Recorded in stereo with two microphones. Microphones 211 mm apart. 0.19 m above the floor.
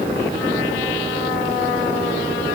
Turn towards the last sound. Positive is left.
No sound to turn to.